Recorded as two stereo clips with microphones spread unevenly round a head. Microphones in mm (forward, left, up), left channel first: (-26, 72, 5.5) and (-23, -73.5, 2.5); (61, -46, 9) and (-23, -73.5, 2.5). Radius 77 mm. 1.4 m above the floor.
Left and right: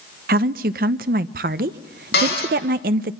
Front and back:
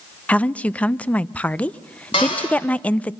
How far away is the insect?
I don't hear an insect.